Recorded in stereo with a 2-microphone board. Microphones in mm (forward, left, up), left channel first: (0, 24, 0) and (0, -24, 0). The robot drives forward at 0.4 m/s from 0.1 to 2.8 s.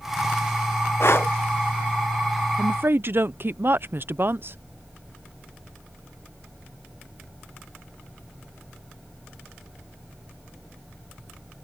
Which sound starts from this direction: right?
A woman speaking, at 2.6 s.